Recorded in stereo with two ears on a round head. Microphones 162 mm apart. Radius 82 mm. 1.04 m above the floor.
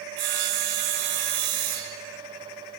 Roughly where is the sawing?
Right.